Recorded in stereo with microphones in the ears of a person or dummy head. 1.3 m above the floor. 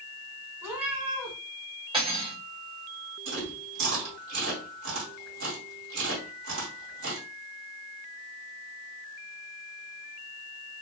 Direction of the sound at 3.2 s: 65° right (ahead or behind).